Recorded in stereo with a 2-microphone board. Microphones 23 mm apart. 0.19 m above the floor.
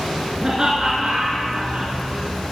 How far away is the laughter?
About 2.5 m.